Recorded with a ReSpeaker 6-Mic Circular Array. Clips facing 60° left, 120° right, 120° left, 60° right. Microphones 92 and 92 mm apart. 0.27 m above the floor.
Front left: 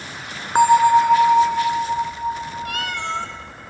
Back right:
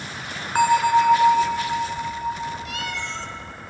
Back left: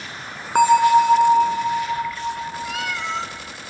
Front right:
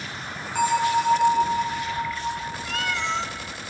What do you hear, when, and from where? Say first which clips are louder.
0.6 s a bell: front left 4 dB, back left 8 dB; 125° left, 0.7 m
2.6 s a cat meowing: front left 4 dB, even; 35° left, 0.8 m